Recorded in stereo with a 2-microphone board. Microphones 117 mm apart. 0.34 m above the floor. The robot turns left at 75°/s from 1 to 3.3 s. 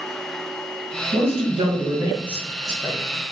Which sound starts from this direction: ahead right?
A man speaking, at 1.1 s.